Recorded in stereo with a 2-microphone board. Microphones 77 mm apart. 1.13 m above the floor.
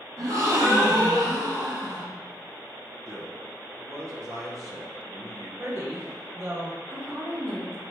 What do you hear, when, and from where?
0.2 s a gasp: 45° right (ahead or behind), 0.8 m
3.1 s a man speaking: 40° right (ahead or behind), 0.6 m
5.6 s a woman speaking: 35° right (ahead or behind), 0.9 m
6.9 s a woman speaking: 35° right (ahead or behind), 1.1 m